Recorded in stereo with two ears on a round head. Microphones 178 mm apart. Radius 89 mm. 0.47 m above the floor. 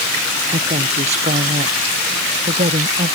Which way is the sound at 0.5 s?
30° right (ahead or behind).